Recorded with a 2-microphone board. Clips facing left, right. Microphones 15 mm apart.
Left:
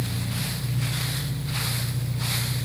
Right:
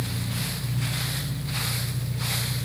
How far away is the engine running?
About 7 m.